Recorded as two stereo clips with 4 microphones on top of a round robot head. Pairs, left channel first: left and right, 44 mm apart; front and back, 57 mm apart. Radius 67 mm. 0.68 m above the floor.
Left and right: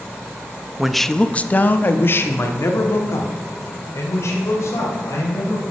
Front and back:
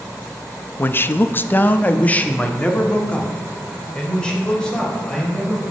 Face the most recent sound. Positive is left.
turn(degrees=75)